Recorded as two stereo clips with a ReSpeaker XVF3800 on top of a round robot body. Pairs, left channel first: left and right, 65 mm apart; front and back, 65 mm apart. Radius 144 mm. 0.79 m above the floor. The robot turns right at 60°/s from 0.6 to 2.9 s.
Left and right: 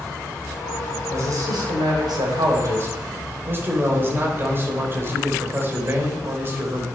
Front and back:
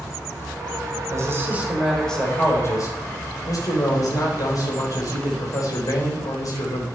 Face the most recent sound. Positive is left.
turn(degrees=-35)